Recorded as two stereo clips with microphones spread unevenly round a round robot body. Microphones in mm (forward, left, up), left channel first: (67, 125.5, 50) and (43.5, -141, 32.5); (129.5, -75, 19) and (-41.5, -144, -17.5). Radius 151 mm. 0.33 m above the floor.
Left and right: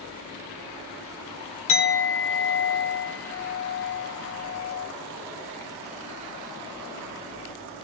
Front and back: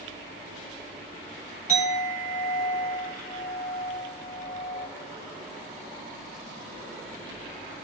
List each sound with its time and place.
1.7 s a clink: 80° left, 0.9 m